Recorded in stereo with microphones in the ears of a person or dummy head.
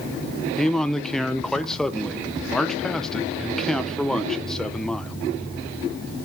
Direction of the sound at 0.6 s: 5° left (ahead or behind).